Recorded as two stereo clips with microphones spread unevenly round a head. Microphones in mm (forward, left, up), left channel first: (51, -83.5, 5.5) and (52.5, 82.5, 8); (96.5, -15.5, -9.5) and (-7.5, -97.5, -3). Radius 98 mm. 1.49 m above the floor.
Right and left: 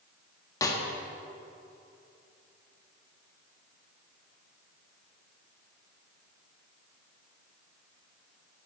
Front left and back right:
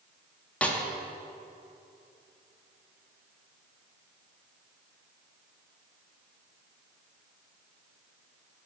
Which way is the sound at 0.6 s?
40° right.